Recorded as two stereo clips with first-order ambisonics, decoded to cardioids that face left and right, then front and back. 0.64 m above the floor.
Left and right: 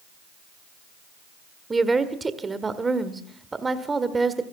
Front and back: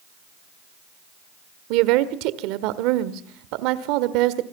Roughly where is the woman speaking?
Behind.